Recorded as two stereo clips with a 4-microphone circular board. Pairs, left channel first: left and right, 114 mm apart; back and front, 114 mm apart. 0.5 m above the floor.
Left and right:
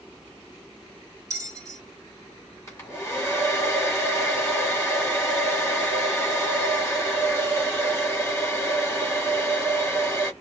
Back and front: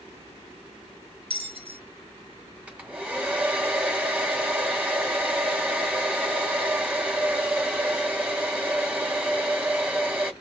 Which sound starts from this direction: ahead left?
A hair dryer, at 2.7 s.